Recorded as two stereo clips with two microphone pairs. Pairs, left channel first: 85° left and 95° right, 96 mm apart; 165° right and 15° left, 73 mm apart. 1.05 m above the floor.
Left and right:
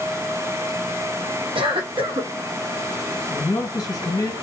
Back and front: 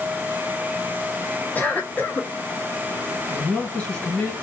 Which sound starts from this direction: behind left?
A man speaking, at 3.3 s.